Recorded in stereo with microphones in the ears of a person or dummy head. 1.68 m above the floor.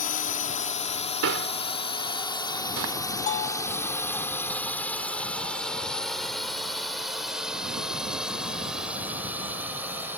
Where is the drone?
55° left (ahead or behind); by 10.2 s centre (ahead or behind).